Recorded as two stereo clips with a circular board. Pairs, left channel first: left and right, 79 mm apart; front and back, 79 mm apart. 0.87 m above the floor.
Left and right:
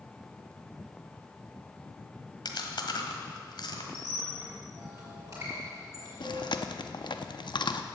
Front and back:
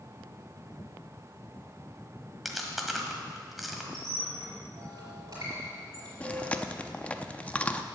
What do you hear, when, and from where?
2.5 s chewing: 90° left, 1.5 m
3.9 s a squeak: 140° right, 6.5 m
6.2 s chewing: 75° left, 0.6 m